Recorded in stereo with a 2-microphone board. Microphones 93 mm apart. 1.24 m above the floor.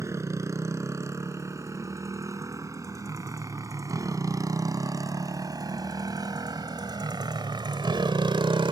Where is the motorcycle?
30° right (ahead or behind); by 8.7 s 60° right (ahead or behind).